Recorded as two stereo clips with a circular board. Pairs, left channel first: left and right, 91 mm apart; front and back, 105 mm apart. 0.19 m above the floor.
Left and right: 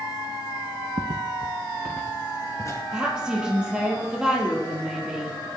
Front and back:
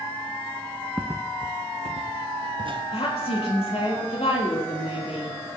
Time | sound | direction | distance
1.0 | footsteps | 85° right | 0.9 m
2.9 | a woman speaking | 10° right | 4.5 m